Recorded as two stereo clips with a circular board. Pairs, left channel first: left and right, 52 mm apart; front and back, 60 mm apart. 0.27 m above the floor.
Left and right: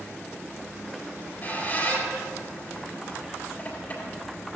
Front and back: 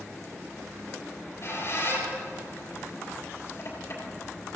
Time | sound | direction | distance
1.1 | a squeak | 40° left | 6 m